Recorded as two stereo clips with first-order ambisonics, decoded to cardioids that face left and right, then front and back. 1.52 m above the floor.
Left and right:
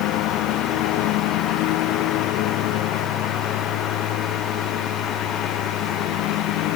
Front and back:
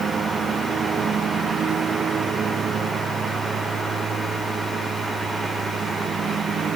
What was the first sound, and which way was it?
A lawn mower, 120° left.